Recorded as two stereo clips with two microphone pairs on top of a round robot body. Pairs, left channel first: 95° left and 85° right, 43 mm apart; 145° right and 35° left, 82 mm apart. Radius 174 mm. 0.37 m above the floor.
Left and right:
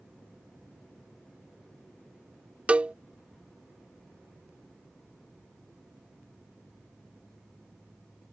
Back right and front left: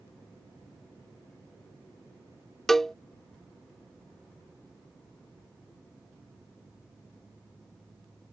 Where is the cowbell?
75° right.